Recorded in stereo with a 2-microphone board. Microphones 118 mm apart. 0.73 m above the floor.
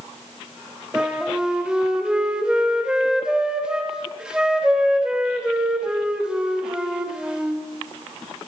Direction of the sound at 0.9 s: 5° right (ahead or behind).